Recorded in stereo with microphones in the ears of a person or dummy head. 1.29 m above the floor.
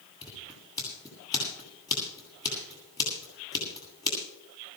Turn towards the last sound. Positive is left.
turn(degrees=20)  # may be behind; listen again after turning